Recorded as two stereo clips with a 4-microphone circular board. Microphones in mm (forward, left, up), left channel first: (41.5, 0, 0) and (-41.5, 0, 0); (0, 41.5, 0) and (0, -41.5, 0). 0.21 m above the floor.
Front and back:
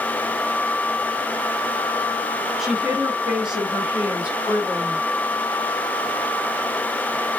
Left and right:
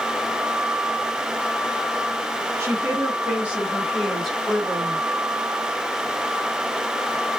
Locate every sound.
2.6 s a woman speaking: 95° right, 1.7 m; by 5.0 s 130° left, 1.6 m